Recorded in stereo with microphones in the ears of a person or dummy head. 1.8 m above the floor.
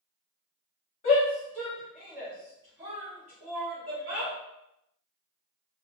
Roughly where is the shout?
Left.